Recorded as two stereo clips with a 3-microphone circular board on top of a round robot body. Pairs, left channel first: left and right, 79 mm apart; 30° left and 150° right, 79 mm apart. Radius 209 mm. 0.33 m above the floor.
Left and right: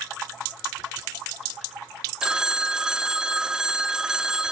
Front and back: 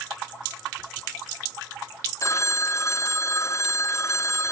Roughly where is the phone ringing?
Ahead.